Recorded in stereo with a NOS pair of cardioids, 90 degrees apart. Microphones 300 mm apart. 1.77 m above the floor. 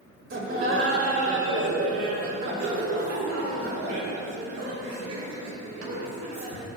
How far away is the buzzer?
No buzzer in this recording.